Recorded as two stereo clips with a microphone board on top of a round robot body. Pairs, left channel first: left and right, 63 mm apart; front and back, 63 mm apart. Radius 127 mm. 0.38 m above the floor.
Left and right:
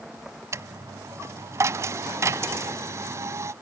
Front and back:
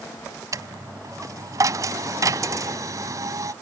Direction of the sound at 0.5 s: 140° right.